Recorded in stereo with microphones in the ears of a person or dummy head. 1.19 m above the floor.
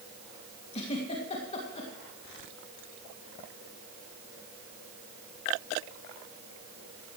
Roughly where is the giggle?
Left.